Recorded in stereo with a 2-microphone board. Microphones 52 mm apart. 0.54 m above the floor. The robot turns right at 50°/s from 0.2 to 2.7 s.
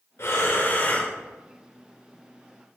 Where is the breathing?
110° left, 1.7 m; by 1.1 s 160° left, 1.7 m.